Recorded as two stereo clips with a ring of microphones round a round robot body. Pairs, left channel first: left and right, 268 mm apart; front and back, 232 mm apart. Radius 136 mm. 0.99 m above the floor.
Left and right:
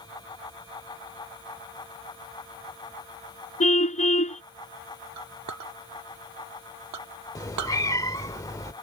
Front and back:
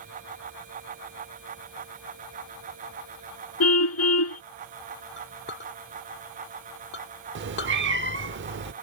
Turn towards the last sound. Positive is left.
turn(degrees=165)